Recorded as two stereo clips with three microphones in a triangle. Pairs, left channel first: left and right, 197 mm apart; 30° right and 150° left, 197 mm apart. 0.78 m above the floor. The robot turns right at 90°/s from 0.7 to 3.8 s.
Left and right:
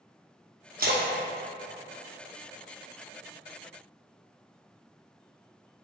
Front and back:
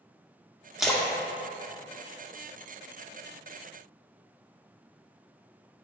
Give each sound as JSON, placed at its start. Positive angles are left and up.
{"t": 0.8, "sound": "a splash", "azimuth_deg": -125, "distance_m": 0.5}